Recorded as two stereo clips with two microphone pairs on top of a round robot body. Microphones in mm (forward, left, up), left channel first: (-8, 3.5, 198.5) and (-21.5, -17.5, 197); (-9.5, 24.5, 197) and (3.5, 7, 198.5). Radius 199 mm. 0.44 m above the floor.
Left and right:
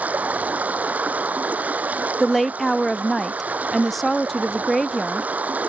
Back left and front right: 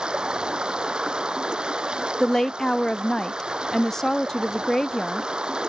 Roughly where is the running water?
Right.